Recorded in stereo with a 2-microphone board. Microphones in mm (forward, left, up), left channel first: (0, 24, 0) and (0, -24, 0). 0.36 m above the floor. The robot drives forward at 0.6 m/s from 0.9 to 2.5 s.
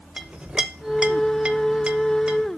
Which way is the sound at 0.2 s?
20° right (ahead or behind).